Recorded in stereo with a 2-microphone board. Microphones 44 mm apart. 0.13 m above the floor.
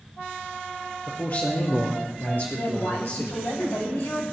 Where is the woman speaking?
70° left (ahead or behind), 10 m.